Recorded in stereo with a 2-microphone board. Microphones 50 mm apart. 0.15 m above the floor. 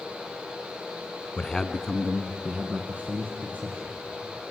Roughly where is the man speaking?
Centre.